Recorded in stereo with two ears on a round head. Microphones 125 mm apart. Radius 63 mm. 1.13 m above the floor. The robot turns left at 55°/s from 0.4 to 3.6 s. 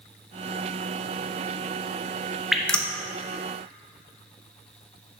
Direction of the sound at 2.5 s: 5° right (ahead or behind).